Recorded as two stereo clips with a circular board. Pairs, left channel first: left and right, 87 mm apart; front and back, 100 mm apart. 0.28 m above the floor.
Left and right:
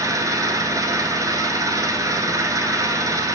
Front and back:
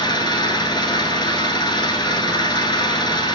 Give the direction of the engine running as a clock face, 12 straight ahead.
1 o'clock.